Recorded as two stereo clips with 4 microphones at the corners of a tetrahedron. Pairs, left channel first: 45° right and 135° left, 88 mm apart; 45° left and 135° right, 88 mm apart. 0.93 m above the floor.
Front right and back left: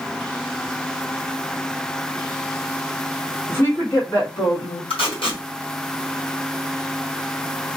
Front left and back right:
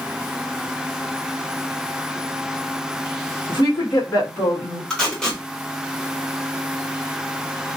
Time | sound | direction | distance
3.5 | a woman speaking | 15° left | 1.6 m
4.9 | tape being pulled | 35° right | 1.4 m